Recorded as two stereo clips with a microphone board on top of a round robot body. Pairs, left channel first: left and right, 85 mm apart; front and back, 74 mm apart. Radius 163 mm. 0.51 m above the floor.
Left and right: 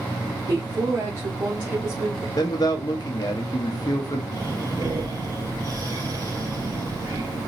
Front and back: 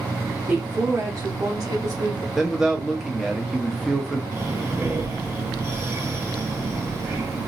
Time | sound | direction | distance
0.5 | a woman speaking | 115° right | 1.4 m
2.4 | a man speaking | 90° left | 1.0 m
4.3 | breathing | 130° right | 2.5 m